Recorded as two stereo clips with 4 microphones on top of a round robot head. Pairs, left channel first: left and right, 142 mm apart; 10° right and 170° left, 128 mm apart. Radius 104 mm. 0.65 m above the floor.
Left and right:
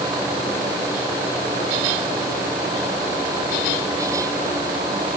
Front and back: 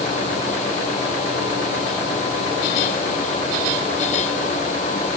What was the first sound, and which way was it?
Only background noise.